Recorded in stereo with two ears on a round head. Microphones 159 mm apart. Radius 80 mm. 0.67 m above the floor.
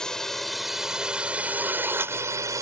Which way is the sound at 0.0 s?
5° left (ahead or behind).